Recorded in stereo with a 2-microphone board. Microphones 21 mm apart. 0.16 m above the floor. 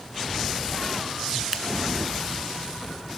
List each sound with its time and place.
1.5 s scissors: 30° right (ahead or behind), 1.0 m